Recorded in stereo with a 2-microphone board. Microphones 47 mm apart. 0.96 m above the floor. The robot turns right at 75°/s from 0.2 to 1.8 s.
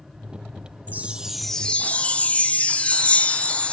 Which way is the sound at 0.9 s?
40° right.